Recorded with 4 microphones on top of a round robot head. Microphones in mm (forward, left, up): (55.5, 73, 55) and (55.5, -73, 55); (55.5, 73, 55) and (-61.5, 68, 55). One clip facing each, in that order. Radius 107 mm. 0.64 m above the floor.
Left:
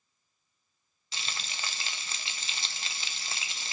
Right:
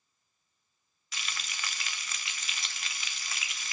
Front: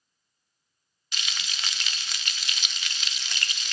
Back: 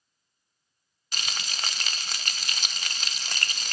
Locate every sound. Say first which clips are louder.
1.1 s frying: left 1 dB, back 2 dB; 145° left, 0.6 m